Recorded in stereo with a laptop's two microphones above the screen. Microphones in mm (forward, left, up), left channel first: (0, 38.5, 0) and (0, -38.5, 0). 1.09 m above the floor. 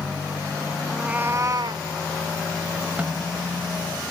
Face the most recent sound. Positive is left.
turn(degrees=-20)  # may be behind; listen again after turning